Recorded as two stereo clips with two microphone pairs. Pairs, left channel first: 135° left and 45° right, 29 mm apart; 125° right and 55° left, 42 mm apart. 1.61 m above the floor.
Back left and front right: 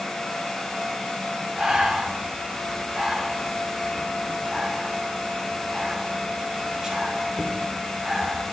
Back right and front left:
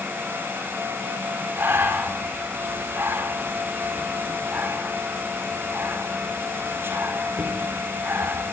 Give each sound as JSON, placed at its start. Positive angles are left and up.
{"t": 1.6, "sound": "breathing", "azimuth_deg": 25, "distance_m": 4.0}